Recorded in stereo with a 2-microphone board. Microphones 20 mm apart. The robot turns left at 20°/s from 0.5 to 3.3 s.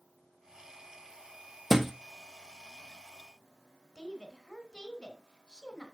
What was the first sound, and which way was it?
A thud, 10° right (ahead or behind).